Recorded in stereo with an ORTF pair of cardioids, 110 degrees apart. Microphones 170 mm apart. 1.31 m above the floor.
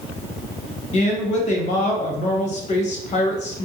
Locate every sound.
0.9 s a woman speaking: 45° left, 0.7 m